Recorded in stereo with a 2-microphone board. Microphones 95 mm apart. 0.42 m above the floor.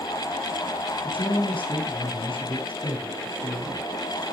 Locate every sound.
1.0 s a man speaking: 75° left (ahead or behind), 5 m